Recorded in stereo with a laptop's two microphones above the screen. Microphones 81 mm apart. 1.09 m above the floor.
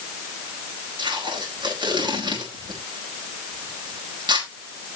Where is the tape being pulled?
70° right (ahead or behind), 5 m.